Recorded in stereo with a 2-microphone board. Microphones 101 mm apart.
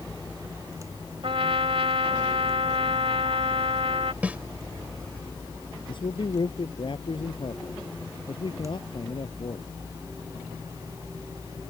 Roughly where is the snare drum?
Centre.